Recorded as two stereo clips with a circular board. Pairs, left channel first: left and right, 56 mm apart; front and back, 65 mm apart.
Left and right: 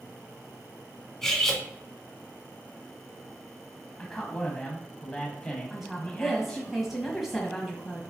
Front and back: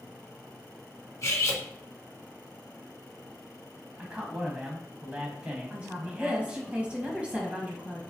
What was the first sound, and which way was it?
Cutlery clinking, 10° left.